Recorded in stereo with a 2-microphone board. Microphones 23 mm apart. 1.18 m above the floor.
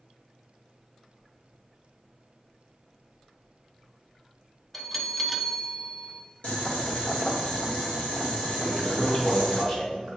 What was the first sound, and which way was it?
A bell, 5° left (ahead or behind).